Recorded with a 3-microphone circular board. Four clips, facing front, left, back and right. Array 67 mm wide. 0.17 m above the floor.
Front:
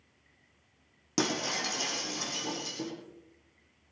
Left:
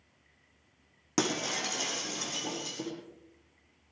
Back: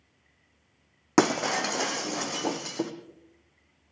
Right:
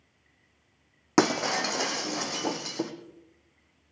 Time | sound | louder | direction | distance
1.2 | breaking glass | right 8 dB, back 9 dB | 145° right | 1.5 m